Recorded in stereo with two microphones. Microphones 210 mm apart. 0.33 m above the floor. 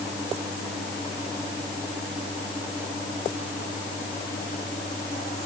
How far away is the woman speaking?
I don't hear a woman speaking.